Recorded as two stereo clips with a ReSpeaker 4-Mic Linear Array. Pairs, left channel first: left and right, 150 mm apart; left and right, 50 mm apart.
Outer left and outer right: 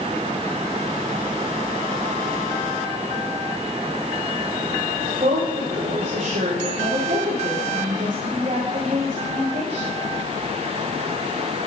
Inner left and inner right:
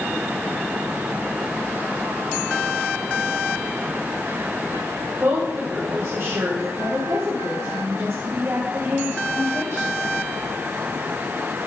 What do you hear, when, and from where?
5.2 s a woman speaking: 45° right (ahead or behind), 4 m